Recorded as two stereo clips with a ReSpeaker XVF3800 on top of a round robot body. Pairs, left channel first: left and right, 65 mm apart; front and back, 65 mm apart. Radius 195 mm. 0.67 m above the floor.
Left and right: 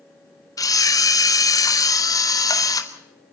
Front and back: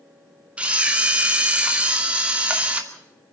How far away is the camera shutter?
About 2.5 m.